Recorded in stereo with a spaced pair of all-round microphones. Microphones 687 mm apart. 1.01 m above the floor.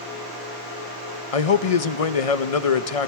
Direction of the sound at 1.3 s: 50° left (ahead or behind).